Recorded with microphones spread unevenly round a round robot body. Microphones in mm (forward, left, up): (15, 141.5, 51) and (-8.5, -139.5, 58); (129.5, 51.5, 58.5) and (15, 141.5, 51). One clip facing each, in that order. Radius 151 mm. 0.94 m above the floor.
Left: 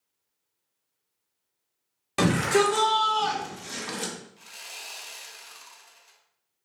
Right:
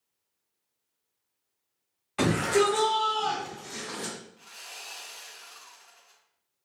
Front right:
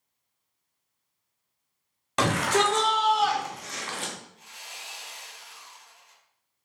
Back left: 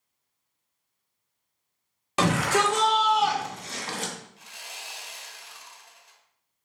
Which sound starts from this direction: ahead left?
A shout, at 2.2 s.